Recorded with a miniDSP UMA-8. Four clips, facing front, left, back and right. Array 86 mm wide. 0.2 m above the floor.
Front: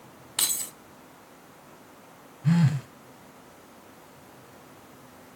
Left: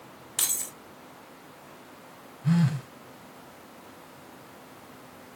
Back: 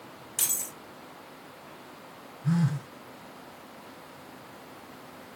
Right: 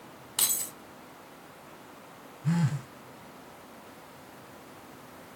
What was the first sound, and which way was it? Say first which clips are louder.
Keys jangling: right 1 dB, front 4 dB; 15° right.